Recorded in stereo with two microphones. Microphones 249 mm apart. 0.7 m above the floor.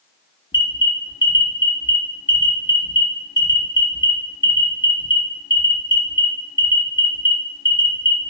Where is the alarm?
45° left (ahead or behind), 1.3 m.